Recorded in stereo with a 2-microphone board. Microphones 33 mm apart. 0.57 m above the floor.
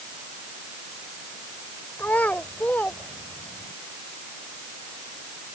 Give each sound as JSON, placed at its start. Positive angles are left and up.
{"t": 2.0, "sound": "a child speaking", "side_deg": 65}